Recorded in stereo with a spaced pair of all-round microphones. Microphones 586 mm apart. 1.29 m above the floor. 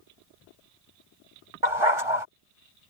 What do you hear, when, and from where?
1.6 s a dog barking: 60° right (ahead or behind)